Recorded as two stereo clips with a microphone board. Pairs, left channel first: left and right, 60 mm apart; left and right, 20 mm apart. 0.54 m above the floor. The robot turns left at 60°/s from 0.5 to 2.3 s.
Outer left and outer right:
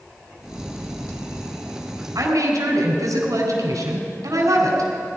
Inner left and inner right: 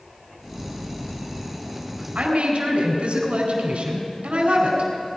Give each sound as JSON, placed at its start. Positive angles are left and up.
{"t": 2.1, "sound": "a woman speaking", "side_deg": -60, "distance_m": 3.5}